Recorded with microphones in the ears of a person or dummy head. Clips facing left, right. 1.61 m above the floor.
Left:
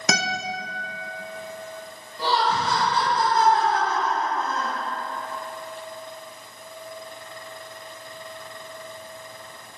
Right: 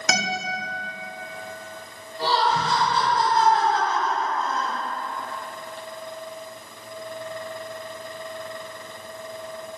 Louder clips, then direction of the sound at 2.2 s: Right 1 dB; 70° left (ahead or behind).